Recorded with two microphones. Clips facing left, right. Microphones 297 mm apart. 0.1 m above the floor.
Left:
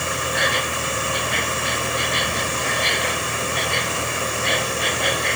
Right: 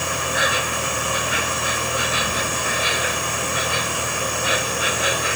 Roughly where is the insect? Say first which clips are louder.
Even; centre.